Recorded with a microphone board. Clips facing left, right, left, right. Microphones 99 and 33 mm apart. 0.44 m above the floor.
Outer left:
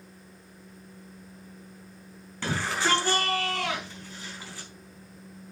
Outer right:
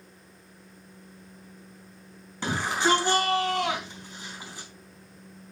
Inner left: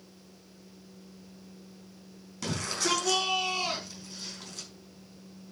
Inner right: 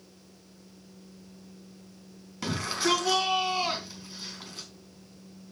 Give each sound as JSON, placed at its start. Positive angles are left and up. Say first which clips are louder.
{"t": 2.4, "sound": "a shout", "louder": "outer right 2 dB, inner right 3 dB", "side_deg": -20, "distance_m": 4.0}